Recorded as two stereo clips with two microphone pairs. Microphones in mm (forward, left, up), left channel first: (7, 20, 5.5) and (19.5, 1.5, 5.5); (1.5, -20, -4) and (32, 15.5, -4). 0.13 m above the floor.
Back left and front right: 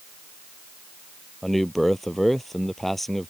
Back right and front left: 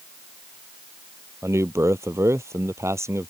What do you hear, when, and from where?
1.4 s a man speaking: 45° left